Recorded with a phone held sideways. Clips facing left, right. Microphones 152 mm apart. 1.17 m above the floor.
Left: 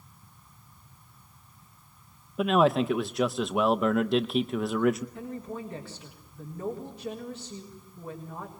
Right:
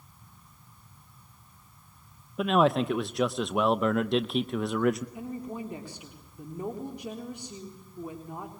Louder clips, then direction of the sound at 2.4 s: Left 1 dB; centre (ahead or behind).